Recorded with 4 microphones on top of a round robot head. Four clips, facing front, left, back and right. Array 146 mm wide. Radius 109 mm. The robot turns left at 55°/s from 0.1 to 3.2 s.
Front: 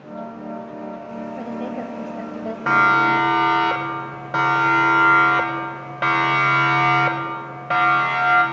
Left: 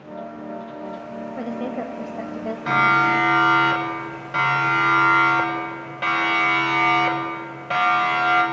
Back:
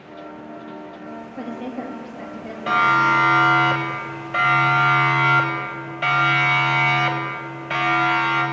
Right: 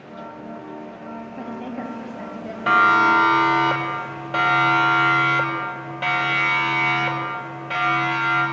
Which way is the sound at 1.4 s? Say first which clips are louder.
Left 4 dB, even; 95° left.